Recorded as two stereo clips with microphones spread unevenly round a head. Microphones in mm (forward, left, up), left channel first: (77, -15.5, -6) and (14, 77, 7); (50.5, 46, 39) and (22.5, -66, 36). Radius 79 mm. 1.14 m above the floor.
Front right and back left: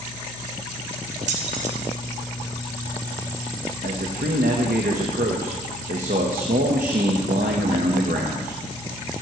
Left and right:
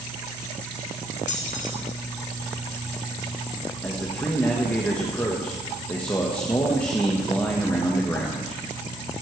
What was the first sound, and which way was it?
Keys jangling, 115° left.